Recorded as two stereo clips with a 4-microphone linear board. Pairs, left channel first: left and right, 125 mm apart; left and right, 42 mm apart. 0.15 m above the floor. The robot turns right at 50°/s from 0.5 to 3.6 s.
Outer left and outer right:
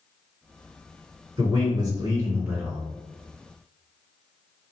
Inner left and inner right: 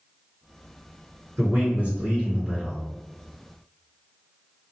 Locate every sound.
1.4 s a man speaking: 80° right, 1.9 m; by 2.8 s 5° right, 1.9 m